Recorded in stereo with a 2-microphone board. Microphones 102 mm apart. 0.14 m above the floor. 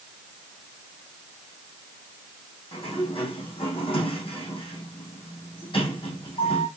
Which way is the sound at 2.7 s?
55° left (ahead or behind).